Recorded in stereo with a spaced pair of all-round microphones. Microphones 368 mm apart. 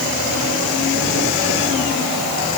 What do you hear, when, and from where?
Only background noise.